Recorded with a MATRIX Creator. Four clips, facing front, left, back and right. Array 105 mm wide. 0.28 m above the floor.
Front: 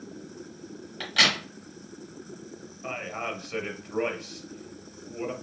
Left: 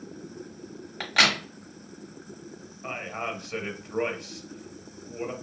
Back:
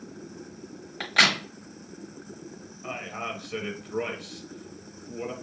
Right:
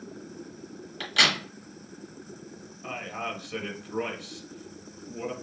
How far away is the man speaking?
About 0.9 m.